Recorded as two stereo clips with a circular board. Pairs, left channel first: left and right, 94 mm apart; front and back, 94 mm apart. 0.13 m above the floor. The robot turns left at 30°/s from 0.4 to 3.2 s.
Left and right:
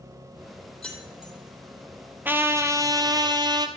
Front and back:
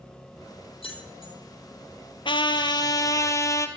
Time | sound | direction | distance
0.8 | keys jangling | 5° left | 3.5 m
2.2 | a trumpet | 20° right | 1.2 m